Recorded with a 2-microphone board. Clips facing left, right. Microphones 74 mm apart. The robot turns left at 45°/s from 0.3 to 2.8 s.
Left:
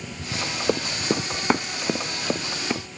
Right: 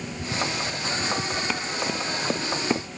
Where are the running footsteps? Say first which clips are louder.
Left 4 dB; 75° left (ahead or behind); by 2.9 s 15° right (ahead or behind).